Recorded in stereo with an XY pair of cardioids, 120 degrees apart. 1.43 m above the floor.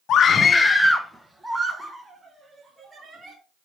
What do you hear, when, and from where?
0.1 s a scream: 60° left, 0.7 m; by 3.4 s 20° right, 3 m